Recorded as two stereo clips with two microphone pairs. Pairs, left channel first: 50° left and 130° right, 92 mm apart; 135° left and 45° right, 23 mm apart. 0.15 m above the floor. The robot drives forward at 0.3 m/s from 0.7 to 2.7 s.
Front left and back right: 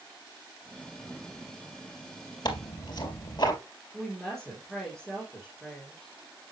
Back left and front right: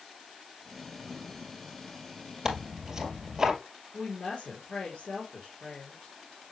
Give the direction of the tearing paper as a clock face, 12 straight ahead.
11 o'clock.